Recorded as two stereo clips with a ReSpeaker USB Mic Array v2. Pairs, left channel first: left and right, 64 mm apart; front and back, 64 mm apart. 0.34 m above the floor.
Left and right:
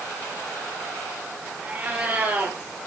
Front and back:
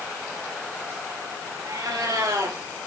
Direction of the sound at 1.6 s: 155° right.